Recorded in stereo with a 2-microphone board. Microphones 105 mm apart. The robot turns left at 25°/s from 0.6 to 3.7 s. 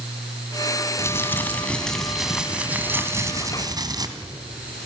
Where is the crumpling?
30° left, 2 m; by 4.1 s 40° right, 2 m.